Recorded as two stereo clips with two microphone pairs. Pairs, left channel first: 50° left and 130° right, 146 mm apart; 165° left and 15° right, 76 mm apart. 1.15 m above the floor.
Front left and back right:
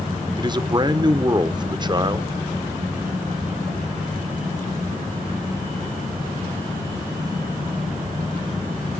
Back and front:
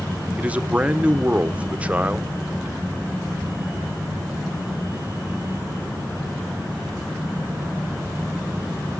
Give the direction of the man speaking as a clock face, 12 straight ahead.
3 o'clock.